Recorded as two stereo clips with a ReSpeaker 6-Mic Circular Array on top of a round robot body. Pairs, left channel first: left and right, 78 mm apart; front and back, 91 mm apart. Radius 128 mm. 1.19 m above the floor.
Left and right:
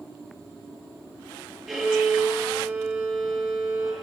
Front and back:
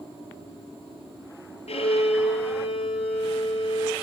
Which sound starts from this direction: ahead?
A violin, at 1.7 s.